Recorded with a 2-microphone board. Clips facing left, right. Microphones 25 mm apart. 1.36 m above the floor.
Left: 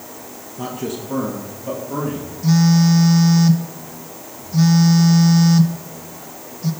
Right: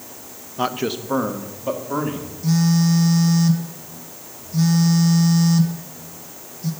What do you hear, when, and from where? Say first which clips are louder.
0.6 s a man speaking: right 4 dB; 55° right (ahead or behind), 1.1 m; by 2.3 s 30° right (ahead or behind), 3.5 m
2.4 s a phone buzzing: left 4 dB; 20° left (ahead or behind), 1.1 m